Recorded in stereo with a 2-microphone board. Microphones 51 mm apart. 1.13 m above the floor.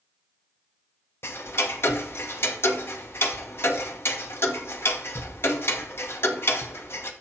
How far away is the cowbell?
I don't hear a cowbell.